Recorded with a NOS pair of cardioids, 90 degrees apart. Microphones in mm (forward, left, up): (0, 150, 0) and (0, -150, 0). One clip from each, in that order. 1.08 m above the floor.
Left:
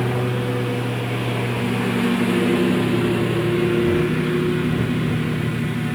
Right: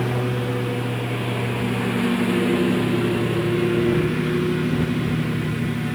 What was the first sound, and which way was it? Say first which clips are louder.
A lawn mower: left 1 dB; 10° left.